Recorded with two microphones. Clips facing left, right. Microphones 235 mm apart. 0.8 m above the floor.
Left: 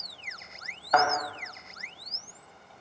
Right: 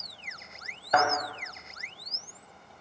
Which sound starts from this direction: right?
A thud, at 0.9 s.